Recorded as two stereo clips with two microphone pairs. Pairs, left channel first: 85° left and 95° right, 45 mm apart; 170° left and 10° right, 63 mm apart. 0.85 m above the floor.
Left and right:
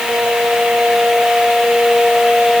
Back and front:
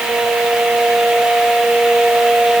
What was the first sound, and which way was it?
Only background noise.